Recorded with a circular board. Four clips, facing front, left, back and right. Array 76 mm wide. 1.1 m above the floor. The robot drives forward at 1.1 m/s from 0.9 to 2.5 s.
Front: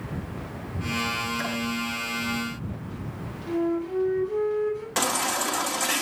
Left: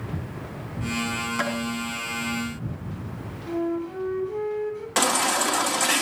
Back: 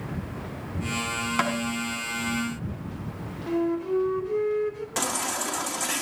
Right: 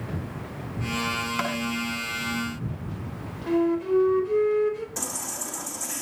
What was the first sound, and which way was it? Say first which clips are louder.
Tapping: left 2 dB, back 5 dB; 170° right.